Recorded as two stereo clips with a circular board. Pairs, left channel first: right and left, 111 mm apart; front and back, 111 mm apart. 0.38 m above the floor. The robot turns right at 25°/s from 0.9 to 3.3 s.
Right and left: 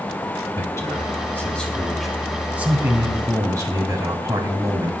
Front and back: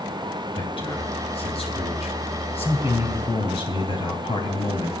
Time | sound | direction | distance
0.6 | a man speaking | 30° right | 3 m